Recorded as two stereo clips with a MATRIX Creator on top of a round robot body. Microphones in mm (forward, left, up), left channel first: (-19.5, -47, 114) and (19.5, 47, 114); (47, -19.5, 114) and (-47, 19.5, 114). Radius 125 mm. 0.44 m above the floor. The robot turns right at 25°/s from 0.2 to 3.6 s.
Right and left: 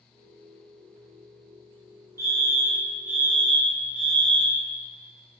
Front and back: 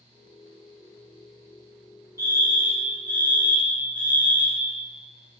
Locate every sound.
2.2 s a fire alarm: 110° left, 2.5 m; by 4.7 s 145° left, 2.5 m